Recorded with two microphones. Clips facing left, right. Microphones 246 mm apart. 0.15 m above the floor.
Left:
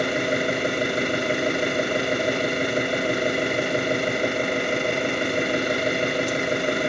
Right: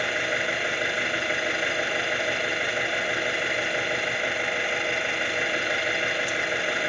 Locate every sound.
0.0 s an engine running: 45° left (ahead or behind), 0.7 m